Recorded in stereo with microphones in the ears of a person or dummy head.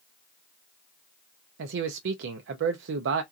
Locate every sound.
1.6 s a man speaking: 75° right (ahead or behind), 0.6 m